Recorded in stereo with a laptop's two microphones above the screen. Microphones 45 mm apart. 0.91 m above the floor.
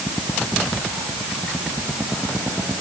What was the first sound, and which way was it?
Only background noise.